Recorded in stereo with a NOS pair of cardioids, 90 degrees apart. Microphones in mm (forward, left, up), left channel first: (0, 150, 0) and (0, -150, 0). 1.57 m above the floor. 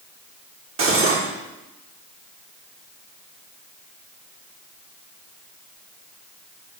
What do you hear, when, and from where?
0.8 s cutlery clinking: 45° right, 2.5 m